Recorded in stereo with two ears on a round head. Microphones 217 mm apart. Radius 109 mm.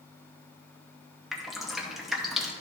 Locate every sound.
1.3 s dripping: centre (ahead or behind), 0.7 m